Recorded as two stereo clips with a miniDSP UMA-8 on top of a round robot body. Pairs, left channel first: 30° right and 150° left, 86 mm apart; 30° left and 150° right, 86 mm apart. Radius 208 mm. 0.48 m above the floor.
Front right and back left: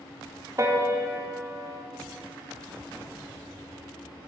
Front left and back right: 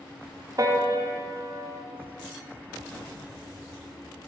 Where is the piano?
175° right, 1.1 m.